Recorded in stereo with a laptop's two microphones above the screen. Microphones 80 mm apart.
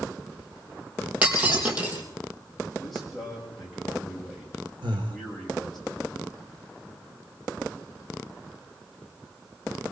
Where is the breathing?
85° right, 1.8 m.